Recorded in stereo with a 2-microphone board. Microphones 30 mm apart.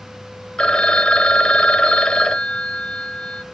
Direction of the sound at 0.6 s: 35° left (ahead or behind).